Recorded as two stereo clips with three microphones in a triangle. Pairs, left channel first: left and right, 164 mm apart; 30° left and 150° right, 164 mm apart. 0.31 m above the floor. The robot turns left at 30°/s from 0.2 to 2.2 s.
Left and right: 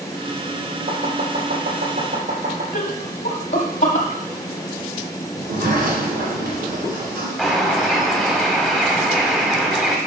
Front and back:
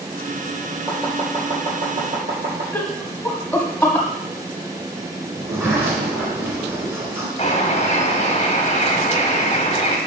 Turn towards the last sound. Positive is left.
turn(degrees=0)